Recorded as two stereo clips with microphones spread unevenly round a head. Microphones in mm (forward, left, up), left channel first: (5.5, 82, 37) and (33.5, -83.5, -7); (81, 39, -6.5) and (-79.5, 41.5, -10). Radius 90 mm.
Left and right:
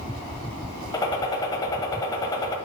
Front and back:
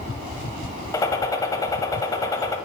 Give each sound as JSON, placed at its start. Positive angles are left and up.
{"t": 0.9, "sound": "a gunshot", "azimuth_deg": 55, "distance_m": 1.1}